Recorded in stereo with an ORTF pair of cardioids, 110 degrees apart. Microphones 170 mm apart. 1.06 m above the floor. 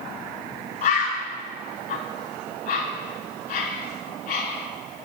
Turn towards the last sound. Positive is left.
turn(degrees=70)